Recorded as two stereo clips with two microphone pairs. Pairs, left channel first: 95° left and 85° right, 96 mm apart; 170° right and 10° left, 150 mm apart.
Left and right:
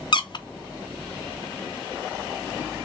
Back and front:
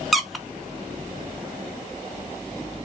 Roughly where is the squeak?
Left.